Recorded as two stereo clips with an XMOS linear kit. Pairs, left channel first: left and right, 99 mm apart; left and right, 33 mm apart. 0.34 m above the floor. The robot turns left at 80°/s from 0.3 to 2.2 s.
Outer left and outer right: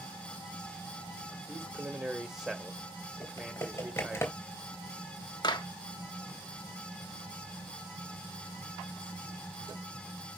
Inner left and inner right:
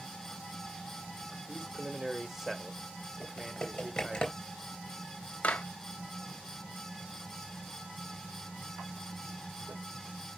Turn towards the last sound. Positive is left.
turn(degrees=50)  # may be behind; listen again after turning